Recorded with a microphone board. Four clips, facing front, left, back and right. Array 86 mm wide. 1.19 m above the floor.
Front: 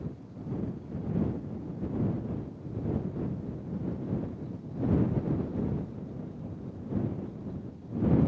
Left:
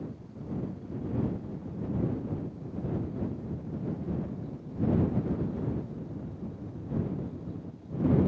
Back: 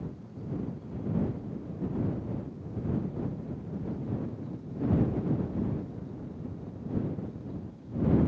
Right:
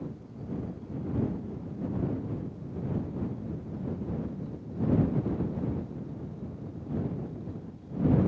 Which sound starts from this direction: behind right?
Ticking, at 0.6 s.